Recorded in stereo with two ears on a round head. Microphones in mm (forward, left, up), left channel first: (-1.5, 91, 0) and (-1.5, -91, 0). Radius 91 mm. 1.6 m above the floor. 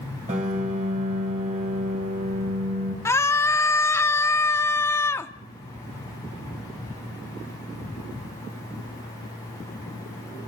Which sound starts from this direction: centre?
A scream, at 3.0 s.